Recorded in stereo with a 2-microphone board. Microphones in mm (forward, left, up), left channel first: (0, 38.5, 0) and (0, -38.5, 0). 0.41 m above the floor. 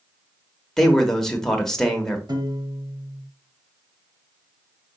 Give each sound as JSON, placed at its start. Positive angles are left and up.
{"t": 0.8, "sound": "a man speaking", "side_deg": 5, "distance_m": 1.0}
{"t": 2.3, "sound": "a piano", "side_deg": -60, "distance_m": 0.9}